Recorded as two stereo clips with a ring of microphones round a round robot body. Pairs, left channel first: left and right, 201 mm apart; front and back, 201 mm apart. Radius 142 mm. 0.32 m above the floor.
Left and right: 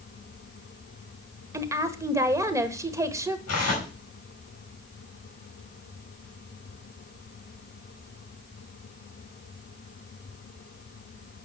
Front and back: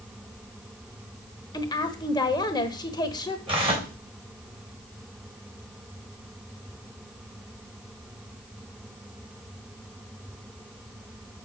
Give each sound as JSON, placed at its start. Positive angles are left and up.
{"t": 1.5, "sound": "a woman speaking", "azimuth_deg": -40, "distance_m": 1.1}
{"t": 3.5, "sound": "tearing paper", "azimuth_deg": 115, "distance_m": 5.0}